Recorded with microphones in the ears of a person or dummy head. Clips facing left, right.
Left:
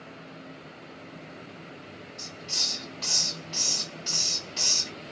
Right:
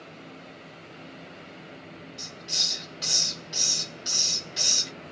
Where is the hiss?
20° right (ahead or behind), 1.9 m.